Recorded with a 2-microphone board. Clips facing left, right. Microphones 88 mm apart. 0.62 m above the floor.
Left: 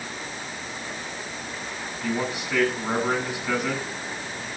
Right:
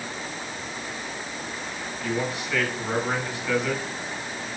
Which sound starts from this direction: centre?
A man speaking, at 2.0 s.